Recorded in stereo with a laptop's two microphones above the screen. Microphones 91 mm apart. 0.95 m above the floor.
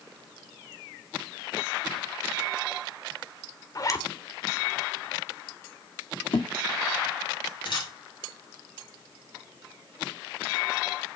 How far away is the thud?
About 0.8 m.